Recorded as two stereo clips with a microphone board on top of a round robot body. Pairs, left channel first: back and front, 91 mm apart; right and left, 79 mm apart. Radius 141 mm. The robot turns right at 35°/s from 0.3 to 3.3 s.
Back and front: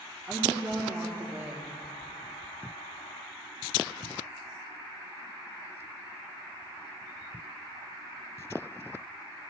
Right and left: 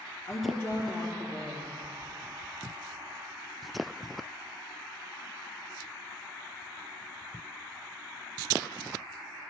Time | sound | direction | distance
0.3 | a woman speaking | 65° right | 1.3 m